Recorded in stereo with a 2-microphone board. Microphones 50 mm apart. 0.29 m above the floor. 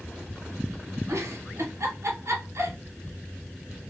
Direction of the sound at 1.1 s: 70° right (ahead or behind).